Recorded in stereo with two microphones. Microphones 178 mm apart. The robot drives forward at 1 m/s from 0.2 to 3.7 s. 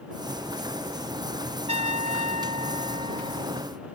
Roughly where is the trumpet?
Right.